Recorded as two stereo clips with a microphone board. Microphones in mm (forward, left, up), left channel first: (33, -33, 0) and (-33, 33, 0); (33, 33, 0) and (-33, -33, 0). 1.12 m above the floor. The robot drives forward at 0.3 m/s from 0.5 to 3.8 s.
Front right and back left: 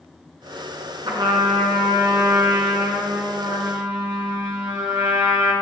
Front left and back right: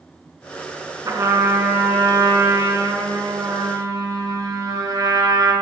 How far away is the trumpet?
About 3 m.